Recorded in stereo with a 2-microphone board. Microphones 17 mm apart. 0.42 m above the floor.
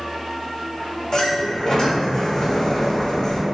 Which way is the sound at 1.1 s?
35° left (ahead or behind).